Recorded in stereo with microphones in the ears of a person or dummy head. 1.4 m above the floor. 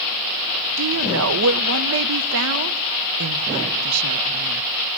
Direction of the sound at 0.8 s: 70° right (ahead or behind).